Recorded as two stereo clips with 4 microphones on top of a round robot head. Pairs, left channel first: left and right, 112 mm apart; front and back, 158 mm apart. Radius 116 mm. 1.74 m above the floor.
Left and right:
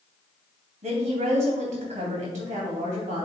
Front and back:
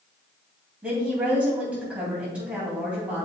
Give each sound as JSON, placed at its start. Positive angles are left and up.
{"t": 0.8, "sound": "a woman speaking", "azimuth_deg": -95, "distance_m": 3.0}